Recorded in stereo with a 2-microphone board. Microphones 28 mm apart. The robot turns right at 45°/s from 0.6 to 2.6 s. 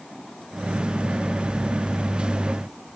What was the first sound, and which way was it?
Only background noise.